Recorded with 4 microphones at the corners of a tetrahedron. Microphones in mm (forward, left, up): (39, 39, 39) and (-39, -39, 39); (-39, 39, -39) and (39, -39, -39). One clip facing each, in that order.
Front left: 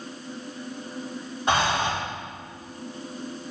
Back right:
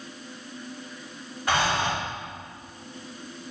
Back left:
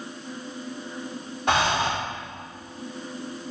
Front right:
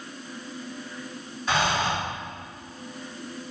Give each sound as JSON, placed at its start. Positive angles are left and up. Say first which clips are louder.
{"t": 1.5, "sound": "breathing", "louder": "front left 1 dB, back left 2 dB", "azimuth_deg": 110, "distance_m": 2.5}